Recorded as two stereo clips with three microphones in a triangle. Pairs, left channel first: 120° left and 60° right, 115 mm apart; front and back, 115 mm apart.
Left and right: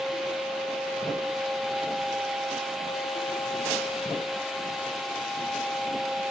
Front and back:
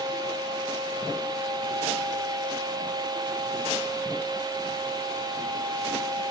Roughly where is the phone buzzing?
No phone buzzing in this recording.